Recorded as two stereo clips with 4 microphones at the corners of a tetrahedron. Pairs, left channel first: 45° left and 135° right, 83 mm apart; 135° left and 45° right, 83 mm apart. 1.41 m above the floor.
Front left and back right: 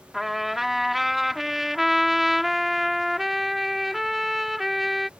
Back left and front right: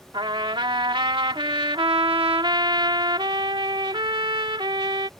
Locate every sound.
0.1 s a trumpet: 45° right